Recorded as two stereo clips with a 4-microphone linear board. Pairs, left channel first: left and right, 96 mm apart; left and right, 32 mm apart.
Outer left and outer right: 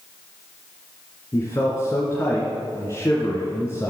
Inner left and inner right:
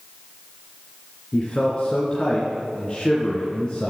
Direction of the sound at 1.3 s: 30° left (ahead or behind).